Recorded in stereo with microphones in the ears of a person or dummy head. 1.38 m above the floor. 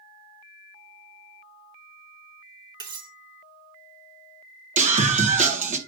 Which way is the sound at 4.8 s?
40° right (ahead or behind).